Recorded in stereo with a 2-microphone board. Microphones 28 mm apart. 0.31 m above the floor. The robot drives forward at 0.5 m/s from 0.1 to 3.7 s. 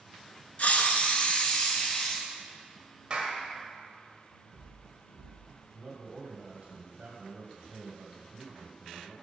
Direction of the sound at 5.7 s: 35° right (ahead or behind).